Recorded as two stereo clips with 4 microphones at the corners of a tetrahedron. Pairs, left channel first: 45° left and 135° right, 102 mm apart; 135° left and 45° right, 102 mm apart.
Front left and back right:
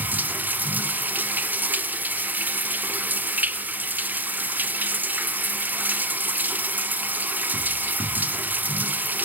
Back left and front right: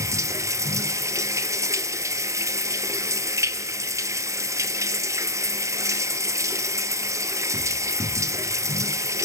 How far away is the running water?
About 0.7 m.